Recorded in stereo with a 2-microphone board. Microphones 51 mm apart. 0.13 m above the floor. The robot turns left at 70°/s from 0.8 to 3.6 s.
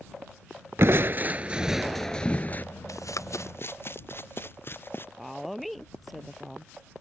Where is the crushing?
100° right; by 2.6 s 130° left.